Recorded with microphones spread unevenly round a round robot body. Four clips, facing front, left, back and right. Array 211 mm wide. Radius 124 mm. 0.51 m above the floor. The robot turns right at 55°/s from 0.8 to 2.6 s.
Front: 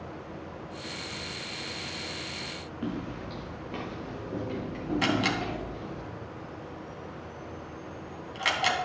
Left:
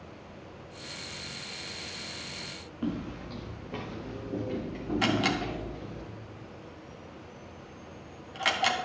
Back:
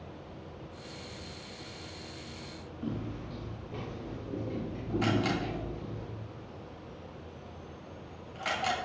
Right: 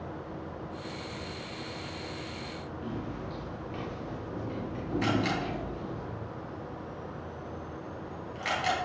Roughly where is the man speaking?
I don't hear a man speaking.